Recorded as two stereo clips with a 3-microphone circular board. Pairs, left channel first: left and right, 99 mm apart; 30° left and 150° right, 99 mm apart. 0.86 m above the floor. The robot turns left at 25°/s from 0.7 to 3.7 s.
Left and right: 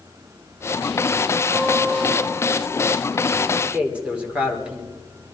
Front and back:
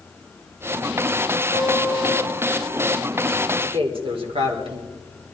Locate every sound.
1.5 s a guitar: 45° right, 8 m; by 2.8 s 75° right, 8 m
3.5 s a man speaking: 165° right, 2.5 m; by 4.9 s 170° right, 2.5 m